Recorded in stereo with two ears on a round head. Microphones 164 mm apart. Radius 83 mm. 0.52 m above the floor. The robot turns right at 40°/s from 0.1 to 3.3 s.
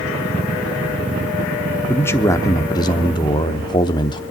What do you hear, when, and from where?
1.9 s a man speaking: 10° left (ahead or behind), 0.9 m; by 4.2 s 25° left (ahead or behind), 0.9 m